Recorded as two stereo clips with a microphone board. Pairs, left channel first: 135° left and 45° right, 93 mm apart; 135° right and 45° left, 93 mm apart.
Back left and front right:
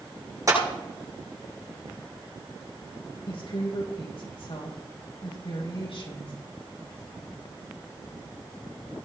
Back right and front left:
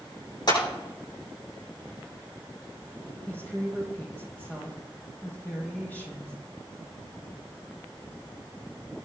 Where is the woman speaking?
155° left, 5.5 m.